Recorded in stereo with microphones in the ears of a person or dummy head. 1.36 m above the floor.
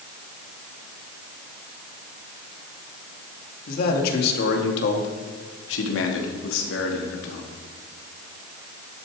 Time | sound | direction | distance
3.7 | a man speaking | 50° left (ahead or behind) | 2.5 m